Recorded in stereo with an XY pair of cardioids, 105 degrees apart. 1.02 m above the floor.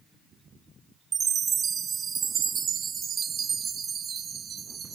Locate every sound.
1.1 s a chime: 50° right, 0.6 m